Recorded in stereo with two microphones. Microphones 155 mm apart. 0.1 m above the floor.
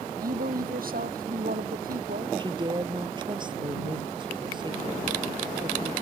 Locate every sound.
0.2 s a woman speaking: 70° right (ahead or behind)
2.4 s a woman speaking: 30° right (ahead or behind)